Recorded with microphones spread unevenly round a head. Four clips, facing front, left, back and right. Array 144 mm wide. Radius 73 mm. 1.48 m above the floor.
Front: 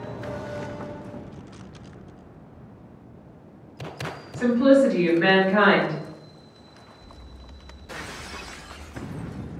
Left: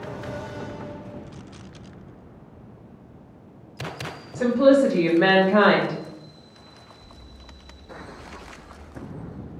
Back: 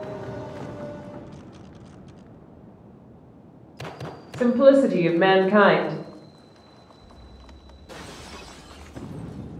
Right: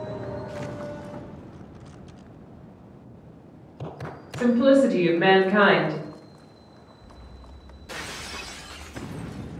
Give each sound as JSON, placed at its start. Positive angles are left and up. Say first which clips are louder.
{"t": 4.3, "sound": "a woman speaking", "louder": "left 1 dB, back 2 dB", "azimuth_deg": 170, "distance_m": 0.7}